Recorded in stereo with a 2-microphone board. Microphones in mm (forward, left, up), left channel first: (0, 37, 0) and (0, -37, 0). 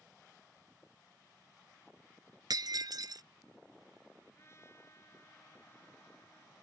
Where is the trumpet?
40° left (ahead or behind).